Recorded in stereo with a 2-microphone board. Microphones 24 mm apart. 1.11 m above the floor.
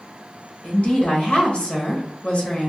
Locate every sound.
0.6 s a woman speaking: 60° left (ahead or behind), 1.2 m